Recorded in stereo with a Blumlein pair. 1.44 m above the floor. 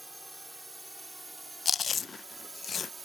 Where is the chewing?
20° left.